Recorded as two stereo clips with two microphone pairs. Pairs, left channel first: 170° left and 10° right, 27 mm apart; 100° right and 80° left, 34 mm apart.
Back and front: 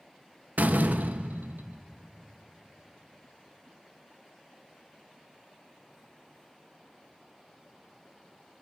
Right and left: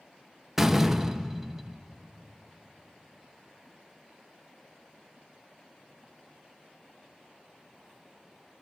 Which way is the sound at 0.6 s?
5° right.